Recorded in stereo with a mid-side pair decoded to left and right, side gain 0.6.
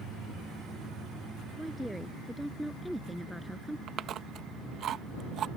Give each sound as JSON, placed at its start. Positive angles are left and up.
{"t": 1.6, "sound": "a woman speaking", "azimuth_deg": 0}
{"t": 3.9, "sound": "chewing", "azimuth_deg": -50}